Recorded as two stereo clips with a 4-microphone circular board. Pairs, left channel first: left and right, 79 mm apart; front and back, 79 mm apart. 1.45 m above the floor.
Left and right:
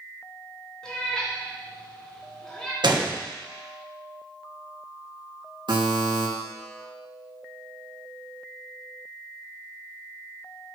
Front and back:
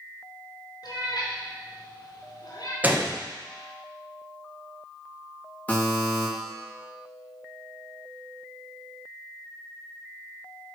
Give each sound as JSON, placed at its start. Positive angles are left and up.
{"t": 0.8, "sound": "a cat meowing", "azimuth_deg": 10, "distance_m": 2.5}
{"t": 2.8, "sound": "a gunshot", "azimuth_deg": -110, "distance_m": 1.2}
{"t": 5.7, "sound": "a buzzer", "azimuth_deg": -70, "distance_m": 2.5}